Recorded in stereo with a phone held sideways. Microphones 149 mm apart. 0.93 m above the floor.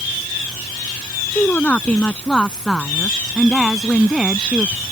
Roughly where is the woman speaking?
Centre.